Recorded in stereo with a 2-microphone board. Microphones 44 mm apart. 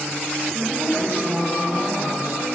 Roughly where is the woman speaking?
Right.